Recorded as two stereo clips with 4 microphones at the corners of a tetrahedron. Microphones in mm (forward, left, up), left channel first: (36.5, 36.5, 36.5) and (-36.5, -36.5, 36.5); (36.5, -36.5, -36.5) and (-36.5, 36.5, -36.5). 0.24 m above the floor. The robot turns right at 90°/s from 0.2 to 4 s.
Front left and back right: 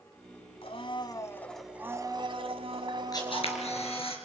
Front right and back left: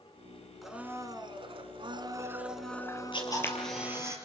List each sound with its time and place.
0.6 s a blender: 45° left, 1.5 m; by 4.1 s 10° right, 1.5 m
3.1 s a camera shutter: 10° right, 4.5 m; by 4.2 s 70° left, 4.5 m